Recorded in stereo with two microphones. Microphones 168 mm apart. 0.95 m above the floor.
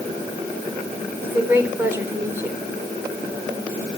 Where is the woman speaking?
15° right (ahead or behind), 4 m.